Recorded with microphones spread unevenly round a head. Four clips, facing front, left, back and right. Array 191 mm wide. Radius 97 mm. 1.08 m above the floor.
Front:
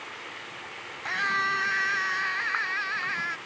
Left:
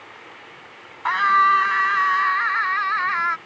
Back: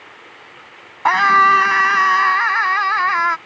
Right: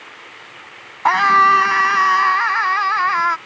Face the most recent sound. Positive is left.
turn(degrees=-150)